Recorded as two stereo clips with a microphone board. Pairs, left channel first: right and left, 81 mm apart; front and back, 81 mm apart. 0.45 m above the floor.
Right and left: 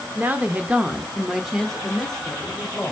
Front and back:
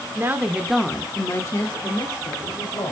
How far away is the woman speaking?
About 0.9 m.